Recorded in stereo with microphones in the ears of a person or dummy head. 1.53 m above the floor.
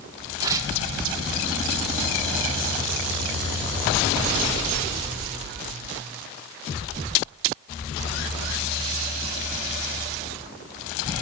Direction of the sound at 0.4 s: 15° right (ahead or behind).